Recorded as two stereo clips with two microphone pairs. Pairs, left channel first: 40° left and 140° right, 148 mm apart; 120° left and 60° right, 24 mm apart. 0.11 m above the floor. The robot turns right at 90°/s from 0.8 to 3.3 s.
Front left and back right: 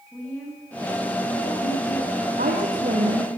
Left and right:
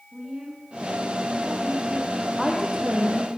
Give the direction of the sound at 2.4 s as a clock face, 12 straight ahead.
5 o'clock.